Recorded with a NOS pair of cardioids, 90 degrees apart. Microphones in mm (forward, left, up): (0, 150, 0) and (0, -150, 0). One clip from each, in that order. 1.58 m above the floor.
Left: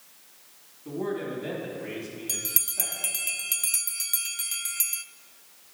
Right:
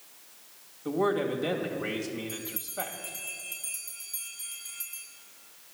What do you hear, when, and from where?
0.8 s a man speaking: 65° right, 2 m
2.3 s a bell: 65° left, 0.5 m